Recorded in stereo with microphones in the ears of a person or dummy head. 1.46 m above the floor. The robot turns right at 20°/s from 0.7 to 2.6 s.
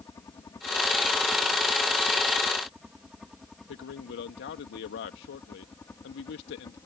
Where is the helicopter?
15° left (ahead or behind); by 6.9 s 20° left (ahead or behind).